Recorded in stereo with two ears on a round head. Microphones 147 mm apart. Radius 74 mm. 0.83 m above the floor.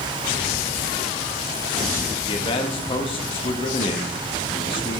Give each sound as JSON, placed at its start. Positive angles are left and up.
{"t": 2.3, "sound": "a man speaking", "side_deg": 35, "distance_m": 1.1}